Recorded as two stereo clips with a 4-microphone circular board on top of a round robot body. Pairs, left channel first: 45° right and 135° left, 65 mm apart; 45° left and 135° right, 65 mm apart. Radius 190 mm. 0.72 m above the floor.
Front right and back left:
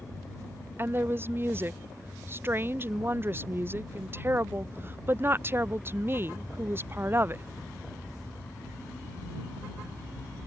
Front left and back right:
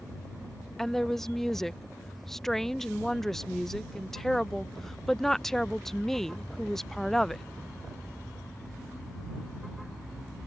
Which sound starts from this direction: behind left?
A woman speaking, at 0.8 s.